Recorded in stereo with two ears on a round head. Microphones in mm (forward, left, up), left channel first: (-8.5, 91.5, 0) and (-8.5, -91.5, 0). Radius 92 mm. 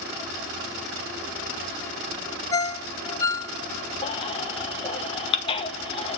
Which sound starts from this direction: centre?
A ringtone, at 2.5 s.